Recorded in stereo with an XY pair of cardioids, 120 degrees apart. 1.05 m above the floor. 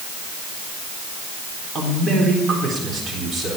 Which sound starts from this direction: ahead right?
A man speaking, at 1.8 s.